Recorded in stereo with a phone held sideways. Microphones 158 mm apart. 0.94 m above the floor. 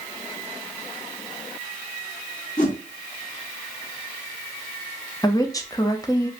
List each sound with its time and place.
2.6 s a whoosh: 55° left (ahead or behind), 1.8 m
5.2 s a woman speaking: 20° left (ahead or behind), 0.6 m